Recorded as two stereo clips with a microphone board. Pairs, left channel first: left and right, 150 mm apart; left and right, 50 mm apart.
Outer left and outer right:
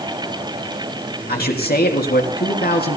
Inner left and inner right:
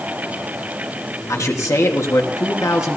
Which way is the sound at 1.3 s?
75° left (ahead or behind).